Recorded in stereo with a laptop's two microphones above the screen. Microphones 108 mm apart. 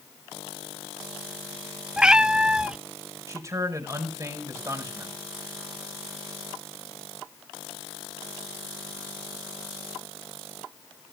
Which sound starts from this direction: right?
A man speaking, at 3.3 s.